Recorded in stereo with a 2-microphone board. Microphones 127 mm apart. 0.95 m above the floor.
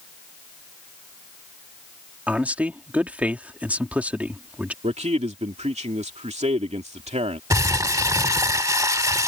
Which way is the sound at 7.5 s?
25° right (ahead or behind).